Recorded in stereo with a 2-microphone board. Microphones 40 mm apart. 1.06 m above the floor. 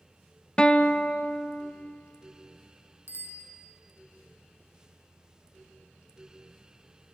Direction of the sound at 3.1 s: 90° left.